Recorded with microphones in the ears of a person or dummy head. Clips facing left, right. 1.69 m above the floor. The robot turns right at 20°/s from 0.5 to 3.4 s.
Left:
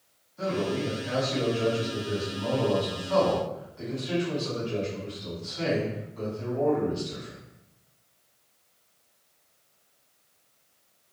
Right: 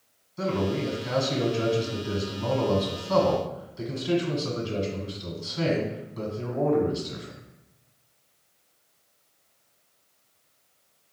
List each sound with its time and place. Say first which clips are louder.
0.4 s a man speaking: right 1 dB; 115° right, 1.3 m; by 7.4 s 55° right, 1.3 m